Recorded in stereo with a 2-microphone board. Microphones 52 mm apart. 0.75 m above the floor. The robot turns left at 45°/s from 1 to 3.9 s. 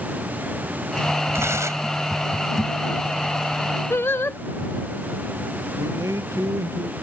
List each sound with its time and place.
1.3 s tearing paper: 60° right (ahead or behind); by 2.0 s 80° right
3.9 s singing: 50° left (ahead or behind)
5.8 s a man speaking: 80° right